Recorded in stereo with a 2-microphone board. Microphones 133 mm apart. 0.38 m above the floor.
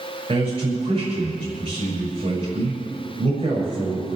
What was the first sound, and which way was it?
A man speaking, 50° right (ahead or behind).